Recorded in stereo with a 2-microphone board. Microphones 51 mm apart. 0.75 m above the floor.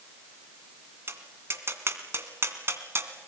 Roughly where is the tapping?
Right.